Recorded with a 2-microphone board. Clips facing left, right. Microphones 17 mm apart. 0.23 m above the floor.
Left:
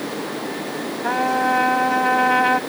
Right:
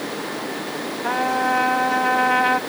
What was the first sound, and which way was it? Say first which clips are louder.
A trumpet: left 1 dB; 5° left (ahead or behind).